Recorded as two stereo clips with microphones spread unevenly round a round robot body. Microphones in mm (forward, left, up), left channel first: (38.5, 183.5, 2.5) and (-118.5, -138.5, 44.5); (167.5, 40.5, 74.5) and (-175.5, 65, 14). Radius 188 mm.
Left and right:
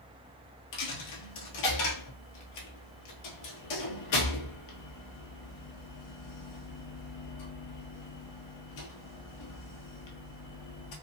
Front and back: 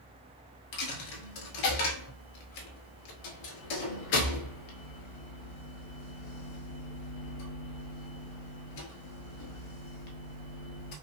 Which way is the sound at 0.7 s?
20° left.